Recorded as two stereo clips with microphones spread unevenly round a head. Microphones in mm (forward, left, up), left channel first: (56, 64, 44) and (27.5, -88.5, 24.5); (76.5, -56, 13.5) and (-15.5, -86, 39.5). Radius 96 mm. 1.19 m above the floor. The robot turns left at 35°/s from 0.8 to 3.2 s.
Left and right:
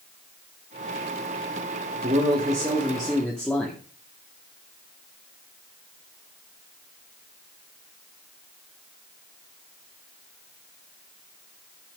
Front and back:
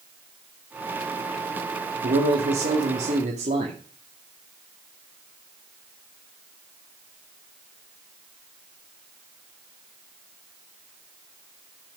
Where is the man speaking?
155° right, 2 m; by 3.8 s 165° left, 2 m.